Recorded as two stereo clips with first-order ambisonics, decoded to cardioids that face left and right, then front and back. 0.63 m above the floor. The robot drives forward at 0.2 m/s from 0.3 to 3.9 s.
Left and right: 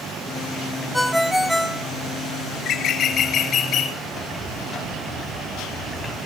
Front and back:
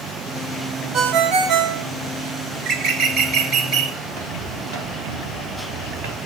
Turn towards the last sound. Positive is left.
turn(degrees=180)